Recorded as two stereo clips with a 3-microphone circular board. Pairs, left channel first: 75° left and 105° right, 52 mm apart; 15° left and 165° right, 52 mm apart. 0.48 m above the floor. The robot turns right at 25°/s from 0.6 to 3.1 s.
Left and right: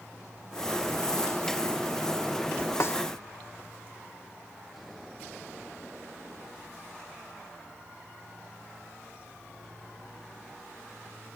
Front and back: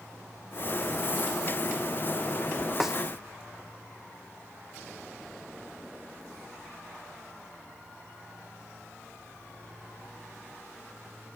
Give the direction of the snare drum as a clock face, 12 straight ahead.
8 o'clock.